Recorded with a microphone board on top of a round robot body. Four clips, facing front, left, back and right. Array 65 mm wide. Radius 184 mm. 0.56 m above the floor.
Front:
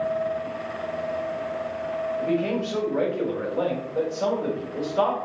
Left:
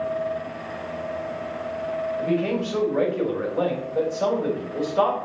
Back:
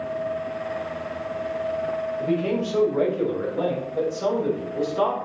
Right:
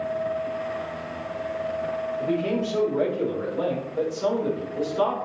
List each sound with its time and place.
2.2 s a man speaking: 55° left, 3.5 m